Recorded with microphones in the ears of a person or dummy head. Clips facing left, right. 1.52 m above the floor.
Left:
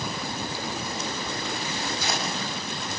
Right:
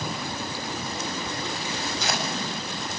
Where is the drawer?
No drawer in this recording.